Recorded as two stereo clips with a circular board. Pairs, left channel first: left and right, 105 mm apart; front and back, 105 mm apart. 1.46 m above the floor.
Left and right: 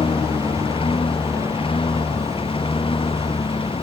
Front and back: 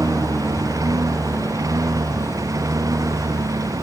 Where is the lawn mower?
125° left; by 3.8 s 120° left.